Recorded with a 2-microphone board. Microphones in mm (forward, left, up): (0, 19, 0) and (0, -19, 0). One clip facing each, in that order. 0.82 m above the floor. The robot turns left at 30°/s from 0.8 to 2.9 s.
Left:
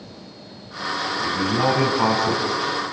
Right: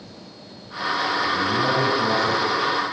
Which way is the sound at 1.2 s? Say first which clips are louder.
Even; 105° left.